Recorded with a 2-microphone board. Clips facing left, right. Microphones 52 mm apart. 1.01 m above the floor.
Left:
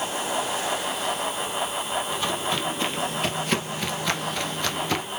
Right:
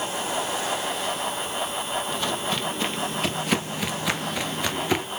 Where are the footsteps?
5° left (ahead or behind), 1.9 m; by 5.1 s 15° right (ahead or behind), 1.1 m.